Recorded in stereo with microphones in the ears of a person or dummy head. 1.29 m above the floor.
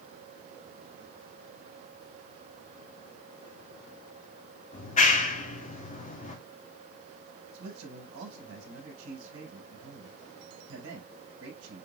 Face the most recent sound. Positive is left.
turn(degrees=-80)